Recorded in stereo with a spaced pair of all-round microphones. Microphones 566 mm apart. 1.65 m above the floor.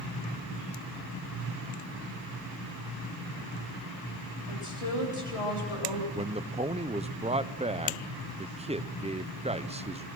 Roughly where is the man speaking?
Centre.